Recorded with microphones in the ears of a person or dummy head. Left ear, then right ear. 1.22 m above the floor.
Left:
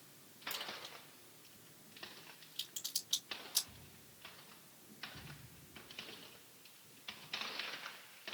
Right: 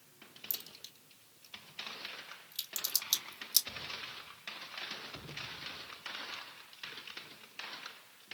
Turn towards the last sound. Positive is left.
turn(degrees=-70)  # may be behind; listen again after turning